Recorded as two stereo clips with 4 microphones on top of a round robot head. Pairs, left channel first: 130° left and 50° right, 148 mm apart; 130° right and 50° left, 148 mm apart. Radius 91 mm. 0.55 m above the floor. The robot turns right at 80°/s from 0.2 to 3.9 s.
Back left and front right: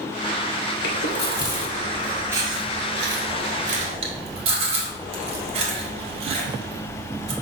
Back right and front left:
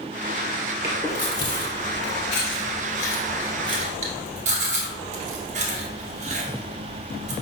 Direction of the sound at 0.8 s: 120° left.